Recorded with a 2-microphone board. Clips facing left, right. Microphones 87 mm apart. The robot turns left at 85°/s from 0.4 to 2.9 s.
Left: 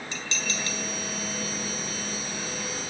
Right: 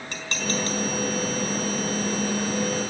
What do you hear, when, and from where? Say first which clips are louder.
0.1 s dishes clattering: right 7 dB; 55° right (ahead or behind), 4 m; by 0.8 s 20° right (ahead or behind), 4 m